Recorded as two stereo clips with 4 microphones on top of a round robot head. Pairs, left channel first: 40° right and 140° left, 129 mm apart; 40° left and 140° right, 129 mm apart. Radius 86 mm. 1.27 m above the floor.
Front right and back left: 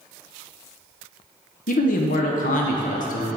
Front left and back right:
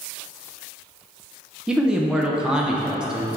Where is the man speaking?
55° right, 0.7 m.